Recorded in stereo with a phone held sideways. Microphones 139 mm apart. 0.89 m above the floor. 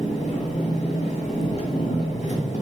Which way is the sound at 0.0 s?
50° left (ahead or behind).